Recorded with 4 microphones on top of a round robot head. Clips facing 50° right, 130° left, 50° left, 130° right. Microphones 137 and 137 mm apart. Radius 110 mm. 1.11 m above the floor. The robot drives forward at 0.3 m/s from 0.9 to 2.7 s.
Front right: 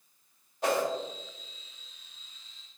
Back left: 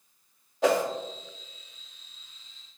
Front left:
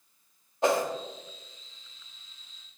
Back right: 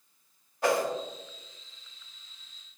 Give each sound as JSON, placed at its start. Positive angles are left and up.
{"t": 0.6, "sound": "a whoosh", "azimuth_deg": 120, "distance_m": 1.5}